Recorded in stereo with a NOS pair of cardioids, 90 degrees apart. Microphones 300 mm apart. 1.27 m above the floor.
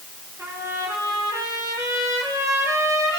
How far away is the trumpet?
About 9 m.